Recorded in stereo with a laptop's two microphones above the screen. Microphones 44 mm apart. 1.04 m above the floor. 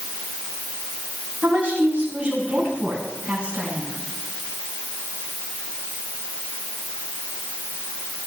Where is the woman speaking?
30° right (ahead or behind), 7.5 m; by 4.0 s 25° right (ahead or behind), 9.5 m.